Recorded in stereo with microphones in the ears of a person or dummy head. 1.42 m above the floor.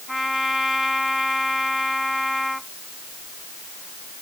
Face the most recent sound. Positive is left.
turn(degrees=0)  # may be behind; listen again after turning